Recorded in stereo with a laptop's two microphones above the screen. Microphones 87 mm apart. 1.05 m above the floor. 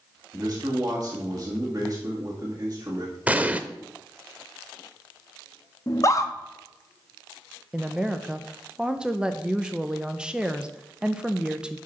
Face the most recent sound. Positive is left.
turn(degrees=-10)  # may be behind; listen again after turning